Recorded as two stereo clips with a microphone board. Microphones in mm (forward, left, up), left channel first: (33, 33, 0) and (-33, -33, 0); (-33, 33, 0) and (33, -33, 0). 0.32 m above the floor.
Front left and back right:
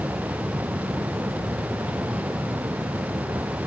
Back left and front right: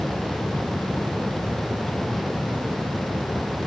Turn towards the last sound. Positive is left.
No sound to turn to.